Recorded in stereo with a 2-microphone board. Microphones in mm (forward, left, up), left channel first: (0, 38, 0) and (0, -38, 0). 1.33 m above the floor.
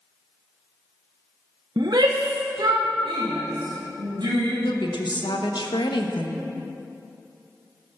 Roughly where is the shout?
Right.